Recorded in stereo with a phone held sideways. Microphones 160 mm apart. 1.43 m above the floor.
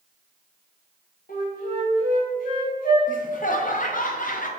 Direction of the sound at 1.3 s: 60° left (ahead or behind).